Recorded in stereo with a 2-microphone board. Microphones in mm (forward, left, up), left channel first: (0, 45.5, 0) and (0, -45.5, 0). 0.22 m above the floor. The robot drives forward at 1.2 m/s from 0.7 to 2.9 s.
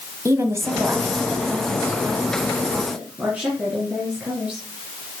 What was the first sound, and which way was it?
A woman speaking, 30° right (ahead or behind).